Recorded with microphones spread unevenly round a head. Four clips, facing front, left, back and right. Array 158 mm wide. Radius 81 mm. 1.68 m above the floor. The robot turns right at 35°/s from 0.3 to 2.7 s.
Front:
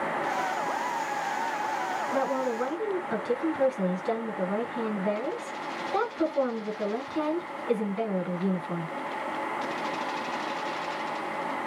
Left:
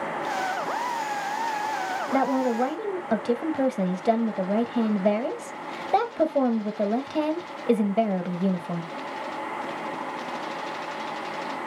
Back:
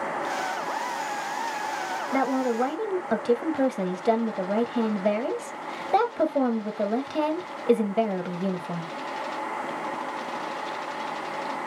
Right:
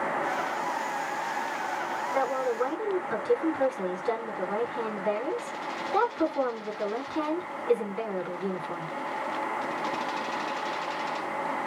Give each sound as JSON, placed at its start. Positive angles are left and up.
{"t": 2.1, "sound": "a woman speaking", "azimuth_deg": 110, "distance_m": 2.5}